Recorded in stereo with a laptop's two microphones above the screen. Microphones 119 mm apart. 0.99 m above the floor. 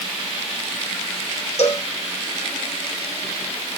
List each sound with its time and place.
1.6 s a cowbell: 70° left (ahead or behind), 1.6 m